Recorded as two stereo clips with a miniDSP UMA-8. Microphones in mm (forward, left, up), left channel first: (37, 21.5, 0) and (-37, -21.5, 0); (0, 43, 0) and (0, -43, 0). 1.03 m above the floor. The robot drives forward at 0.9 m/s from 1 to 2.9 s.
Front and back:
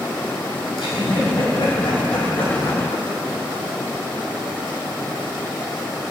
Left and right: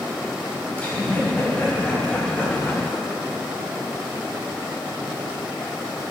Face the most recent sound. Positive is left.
turn(degrees=30)